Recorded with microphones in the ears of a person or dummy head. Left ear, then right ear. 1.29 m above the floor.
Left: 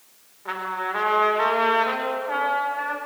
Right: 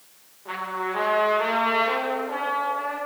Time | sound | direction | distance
0.5 | a trumpet | 60° left (ahead or behind) | 4 m